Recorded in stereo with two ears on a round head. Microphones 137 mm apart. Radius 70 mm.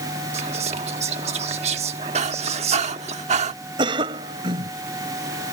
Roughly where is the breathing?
Right.